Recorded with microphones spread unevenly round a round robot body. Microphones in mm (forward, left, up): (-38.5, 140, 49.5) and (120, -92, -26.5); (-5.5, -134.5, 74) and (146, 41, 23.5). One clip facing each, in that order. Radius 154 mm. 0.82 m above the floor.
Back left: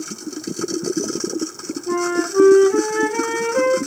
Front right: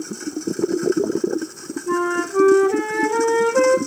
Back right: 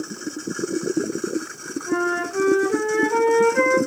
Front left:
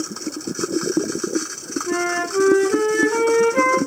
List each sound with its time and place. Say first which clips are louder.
1.9 s a flute: back left 1 dB, back right 1 dB; 10° left, 2.5 m